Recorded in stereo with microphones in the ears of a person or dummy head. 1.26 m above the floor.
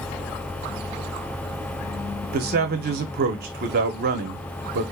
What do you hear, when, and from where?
2.3 s a man speaking: 45° right (ahead or behind), 0.8 m